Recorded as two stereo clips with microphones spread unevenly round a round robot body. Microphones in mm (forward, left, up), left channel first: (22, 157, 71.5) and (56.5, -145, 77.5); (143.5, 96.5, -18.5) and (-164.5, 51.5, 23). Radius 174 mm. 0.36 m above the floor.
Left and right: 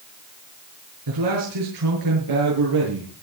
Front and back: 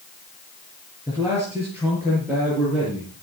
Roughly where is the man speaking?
Right.